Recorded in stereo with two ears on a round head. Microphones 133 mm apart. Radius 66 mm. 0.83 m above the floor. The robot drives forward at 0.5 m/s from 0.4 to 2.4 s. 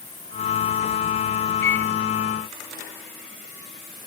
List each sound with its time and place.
1.6 s a microwave: 15° left (ahead or behind); by 1.9 s 10° left (ahead or behind)